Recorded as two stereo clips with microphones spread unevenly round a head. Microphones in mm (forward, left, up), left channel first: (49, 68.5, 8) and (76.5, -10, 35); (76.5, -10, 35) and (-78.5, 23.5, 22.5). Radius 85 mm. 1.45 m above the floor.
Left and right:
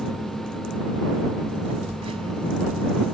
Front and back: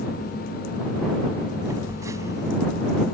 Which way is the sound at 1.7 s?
120° right.